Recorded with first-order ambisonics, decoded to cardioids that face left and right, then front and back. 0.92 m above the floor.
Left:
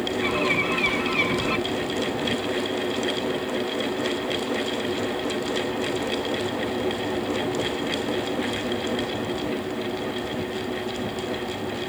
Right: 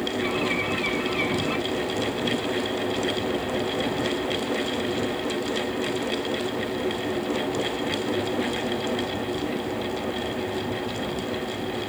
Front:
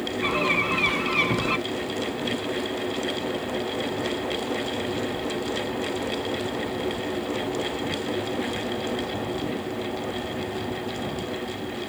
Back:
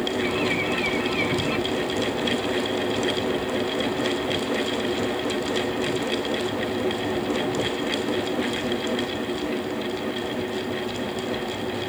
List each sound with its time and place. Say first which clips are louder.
0.2 s a bird: left 4 dB, front 5 dB; 20° left, 1.3 m